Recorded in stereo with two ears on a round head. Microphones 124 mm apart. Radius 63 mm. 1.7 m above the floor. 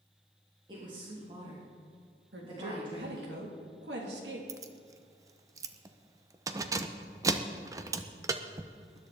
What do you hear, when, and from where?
0.7 s a woman speaking: 30° right (ahead or behind), 3 m
2.3 s a woman speaking: 80° right, 3 m
4.5 s keys jangling: 20° right (ahead or behind), 0.8 m